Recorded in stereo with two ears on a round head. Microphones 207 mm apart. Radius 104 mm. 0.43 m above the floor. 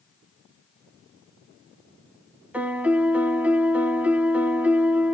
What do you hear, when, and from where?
2.5 s a piano: 5° right (ahead or behind), 0.6 m